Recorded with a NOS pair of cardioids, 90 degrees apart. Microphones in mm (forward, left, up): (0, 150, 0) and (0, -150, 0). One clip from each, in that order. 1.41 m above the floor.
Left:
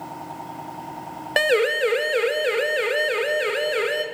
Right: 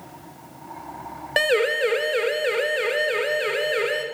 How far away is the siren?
About 3.5 m.